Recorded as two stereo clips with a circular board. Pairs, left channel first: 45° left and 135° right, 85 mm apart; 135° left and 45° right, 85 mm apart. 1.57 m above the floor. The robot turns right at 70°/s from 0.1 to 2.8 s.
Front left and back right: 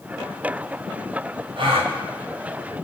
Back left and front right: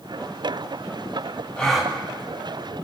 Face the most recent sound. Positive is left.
turn(degrees=-60)